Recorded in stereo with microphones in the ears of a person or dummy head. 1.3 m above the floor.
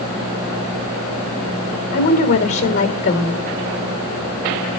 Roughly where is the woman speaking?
Left.